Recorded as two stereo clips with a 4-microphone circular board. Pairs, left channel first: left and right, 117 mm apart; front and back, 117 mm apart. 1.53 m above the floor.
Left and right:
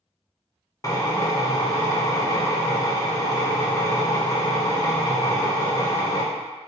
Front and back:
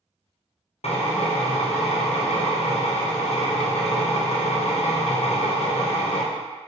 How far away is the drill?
About 0.6 m.